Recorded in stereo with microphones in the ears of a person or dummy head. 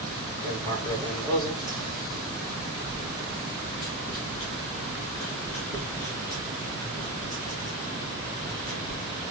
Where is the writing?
20° left (ahead or behind), 5 m.